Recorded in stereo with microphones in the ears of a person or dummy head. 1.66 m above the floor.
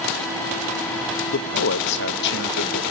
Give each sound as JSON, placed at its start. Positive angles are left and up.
{"t": 1.3, "sound": "a man speaking", "side_deg": 60, "distance_m": 0.8}